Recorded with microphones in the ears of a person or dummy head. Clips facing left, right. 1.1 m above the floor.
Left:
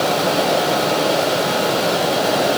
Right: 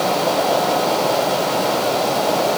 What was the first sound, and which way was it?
Only background noise.